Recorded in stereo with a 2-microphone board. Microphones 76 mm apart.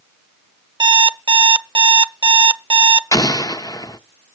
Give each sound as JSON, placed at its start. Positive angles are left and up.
{"t": 0.8, "sound": "an alarm clock", "side_deg": -75, "distance_m": 0.7}
{"t": 3.1, "sound": "an explosion", "side_deg": 50, "distance_m": 0.7}